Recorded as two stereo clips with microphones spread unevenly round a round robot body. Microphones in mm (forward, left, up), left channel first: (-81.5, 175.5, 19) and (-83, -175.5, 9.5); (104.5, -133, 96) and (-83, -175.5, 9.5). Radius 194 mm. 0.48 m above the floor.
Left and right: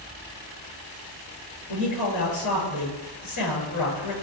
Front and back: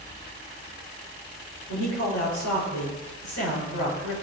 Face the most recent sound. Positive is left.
turn(degrees=45)